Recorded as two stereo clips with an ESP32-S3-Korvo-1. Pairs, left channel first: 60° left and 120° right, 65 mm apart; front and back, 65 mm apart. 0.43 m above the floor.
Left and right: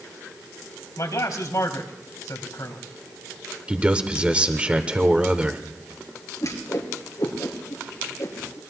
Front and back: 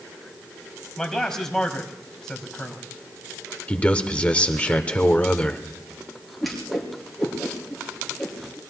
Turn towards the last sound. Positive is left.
turn(degrees=90)